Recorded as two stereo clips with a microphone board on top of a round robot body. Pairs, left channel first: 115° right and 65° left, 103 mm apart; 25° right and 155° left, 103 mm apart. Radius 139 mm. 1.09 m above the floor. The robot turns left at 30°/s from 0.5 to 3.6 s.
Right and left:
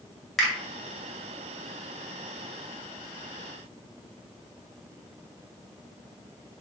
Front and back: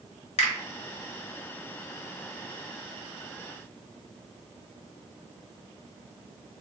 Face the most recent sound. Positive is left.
turn(degrees=-115)